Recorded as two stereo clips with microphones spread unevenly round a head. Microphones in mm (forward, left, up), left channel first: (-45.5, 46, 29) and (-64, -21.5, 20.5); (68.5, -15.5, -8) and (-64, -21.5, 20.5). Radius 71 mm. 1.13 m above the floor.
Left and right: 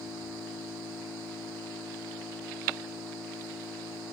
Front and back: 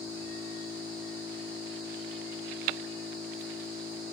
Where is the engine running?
60° right, 8 m.